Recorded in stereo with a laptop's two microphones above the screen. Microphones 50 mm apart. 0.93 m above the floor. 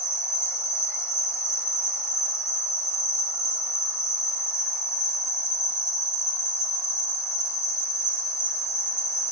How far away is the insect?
About 1.2 m.